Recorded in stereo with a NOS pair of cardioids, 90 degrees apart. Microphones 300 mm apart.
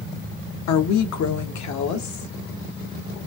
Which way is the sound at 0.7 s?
65° left.